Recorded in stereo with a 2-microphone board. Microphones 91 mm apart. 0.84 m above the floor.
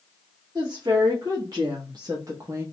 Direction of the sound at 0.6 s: 50° right (ahead or behind).